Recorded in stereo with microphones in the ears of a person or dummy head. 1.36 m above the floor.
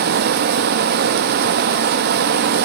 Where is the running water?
50° right (ahead or behind), 0.9 m.